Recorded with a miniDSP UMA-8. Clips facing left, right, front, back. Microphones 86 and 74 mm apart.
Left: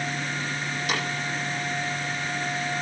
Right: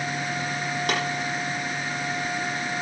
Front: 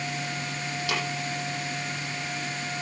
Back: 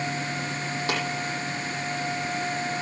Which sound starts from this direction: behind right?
Tapping, at 0.9 s.